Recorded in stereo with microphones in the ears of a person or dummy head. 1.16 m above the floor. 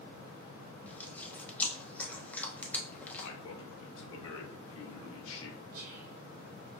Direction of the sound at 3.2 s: 75° left (ahead or behind).